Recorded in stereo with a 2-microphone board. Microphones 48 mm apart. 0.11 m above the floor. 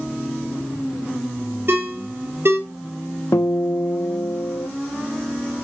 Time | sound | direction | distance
1.7 | a ringtone | 55° right (ahead or behind) | 1.7 m
3.3 | a guitar | 80° left | 0.6 m